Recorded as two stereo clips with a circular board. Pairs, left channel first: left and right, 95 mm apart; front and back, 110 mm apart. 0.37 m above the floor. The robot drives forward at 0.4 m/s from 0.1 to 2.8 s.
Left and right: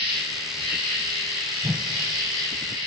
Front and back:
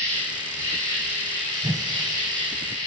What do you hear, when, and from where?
0.0 s an insect: 115° right, 4.5 m; by 2.9 s 125° right, 5 m
1.6 s a whoosh: 160° right, 0.5 m; by 1.9 s 165° right, 0.6 m